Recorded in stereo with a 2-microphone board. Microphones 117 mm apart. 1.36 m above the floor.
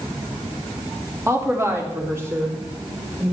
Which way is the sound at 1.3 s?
25° right (ahead or behind).